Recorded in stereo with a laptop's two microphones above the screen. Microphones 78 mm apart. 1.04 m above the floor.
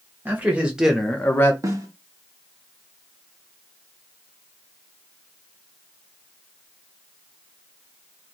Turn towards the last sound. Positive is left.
turn(degrees=-45)  # may be behind; listen again after turning